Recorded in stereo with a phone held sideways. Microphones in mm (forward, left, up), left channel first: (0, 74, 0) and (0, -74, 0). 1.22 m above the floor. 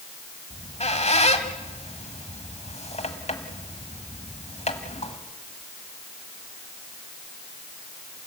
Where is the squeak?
45° left (ahead or behind), 1.4 m.